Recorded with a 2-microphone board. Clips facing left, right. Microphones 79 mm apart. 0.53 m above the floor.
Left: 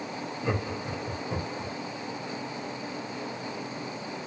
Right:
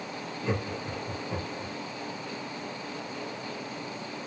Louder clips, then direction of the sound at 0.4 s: Even; 30° left (ahead or behind).